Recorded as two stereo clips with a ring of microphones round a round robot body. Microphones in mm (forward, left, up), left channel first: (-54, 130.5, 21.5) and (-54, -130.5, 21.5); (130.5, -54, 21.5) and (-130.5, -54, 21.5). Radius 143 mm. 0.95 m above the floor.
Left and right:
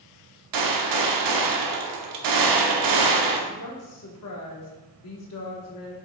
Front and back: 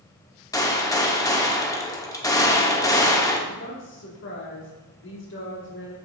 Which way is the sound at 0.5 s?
80° right.